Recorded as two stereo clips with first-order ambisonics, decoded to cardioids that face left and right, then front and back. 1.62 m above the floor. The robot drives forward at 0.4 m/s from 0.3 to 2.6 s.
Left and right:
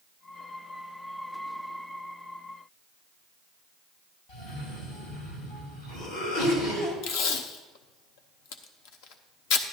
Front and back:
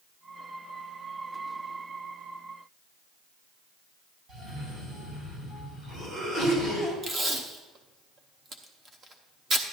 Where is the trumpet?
No trumpet in this recording.